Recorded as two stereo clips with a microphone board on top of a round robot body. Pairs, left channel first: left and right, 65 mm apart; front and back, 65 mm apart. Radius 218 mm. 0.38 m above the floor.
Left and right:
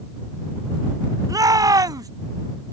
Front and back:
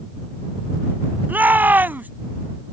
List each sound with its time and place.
1.3 s a shout: 115° right